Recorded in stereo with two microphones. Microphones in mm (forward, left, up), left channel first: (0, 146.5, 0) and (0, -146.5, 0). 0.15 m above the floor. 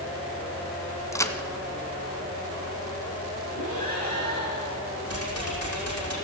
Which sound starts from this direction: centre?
A crack, at 1.1 s.